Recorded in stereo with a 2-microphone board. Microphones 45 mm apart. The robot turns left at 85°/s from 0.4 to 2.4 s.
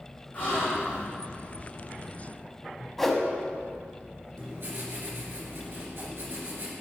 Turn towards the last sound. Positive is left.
turn(degrees=-60)  # may be behind; listen again after turning